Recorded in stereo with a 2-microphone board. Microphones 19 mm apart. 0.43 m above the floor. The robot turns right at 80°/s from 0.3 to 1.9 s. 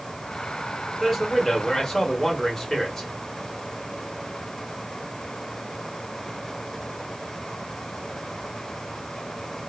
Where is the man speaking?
Centre (ahead or behind), 1.5 m; by 3.1 s 30° left (ahead or behind), 1.5 m.